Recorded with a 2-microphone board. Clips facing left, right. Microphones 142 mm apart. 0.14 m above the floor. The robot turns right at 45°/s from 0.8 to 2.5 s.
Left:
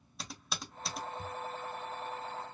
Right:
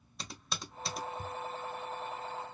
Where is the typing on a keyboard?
Centre (ahead or behind), 0.8 m; by 1.3 s 5° right (ahead or behind), 0.8 m.